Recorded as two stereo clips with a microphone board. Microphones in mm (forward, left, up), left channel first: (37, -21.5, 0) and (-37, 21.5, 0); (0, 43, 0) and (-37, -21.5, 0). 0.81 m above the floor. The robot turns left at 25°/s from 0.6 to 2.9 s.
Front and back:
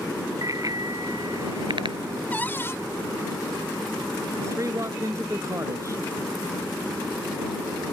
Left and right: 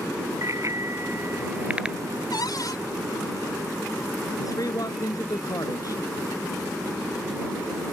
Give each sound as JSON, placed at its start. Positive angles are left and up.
{"t": 0.4, "sound": "a bicycle bell", "azimuth_deg": -165}
{"t": 2.3, "sound": "a cupboard door", "azimuth_deg": 40}
{"t": 4.4, "sound": "a man speaking", "azimuth_deg": 100}